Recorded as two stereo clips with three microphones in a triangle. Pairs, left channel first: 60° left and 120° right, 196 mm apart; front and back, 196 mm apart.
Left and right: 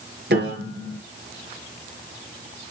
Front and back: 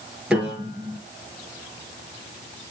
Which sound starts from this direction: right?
A piano, at 0.3 s.